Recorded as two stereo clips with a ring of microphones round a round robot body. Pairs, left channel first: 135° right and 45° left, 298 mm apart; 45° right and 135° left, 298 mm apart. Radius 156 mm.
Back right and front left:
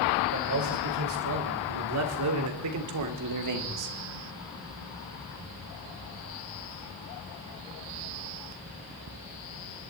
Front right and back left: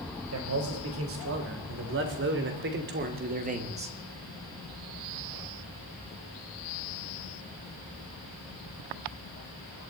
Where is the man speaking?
90° left, 4 m; by 4.0 s 65° left, 1.7 m.